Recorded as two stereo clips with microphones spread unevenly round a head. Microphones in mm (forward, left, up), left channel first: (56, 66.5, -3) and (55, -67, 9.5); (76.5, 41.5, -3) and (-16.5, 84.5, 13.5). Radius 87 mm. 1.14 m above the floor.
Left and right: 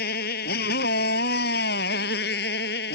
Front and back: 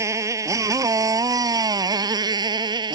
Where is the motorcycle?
95° left; by 3.0 s 115° left.